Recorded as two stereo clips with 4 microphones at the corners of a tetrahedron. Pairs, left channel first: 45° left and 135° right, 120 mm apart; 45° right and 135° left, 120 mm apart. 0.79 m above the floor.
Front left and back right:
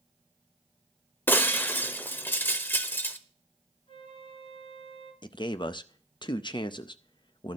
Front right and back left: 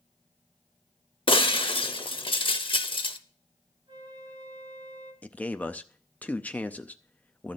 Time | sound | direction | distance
1.3 | breaking glass | 20° right | 0.6 m
3.9 | a flute | 85° left | 2.5 m
5.2 | a man speaking | 25° left | 0.5 m